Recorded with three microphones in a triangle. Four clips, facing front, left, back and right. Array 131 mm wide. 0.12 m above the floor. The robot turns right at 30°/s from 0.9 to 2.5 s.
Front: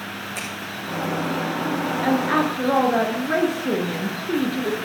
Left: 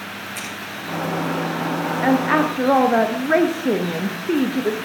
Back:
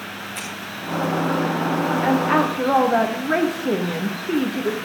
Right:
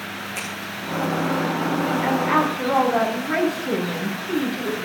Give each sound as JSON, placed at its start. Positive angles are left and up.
{"t": 0.3, "sound": "scissors", "azimuth_deg": -35, "distance_m": 7.0}
{"t": 2.0, "sound": "a woman speaking", "azimuth_deg": 95, "distance_m": 1.8}